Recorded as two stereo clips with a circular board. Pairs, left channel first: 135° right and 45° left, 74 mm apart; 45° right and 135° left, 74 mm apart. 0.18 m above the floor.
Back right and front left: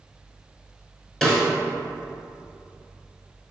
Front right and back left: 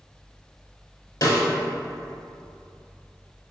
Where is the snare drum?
50° right, 0.9 m.